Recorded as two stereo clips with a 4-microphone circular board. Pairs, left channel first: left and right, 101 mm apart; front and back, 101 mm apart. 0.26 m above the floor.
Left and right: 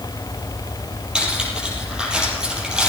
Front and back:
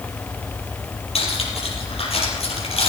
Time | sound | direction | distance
1.1 | cutlery clinking | 10° right | 5 m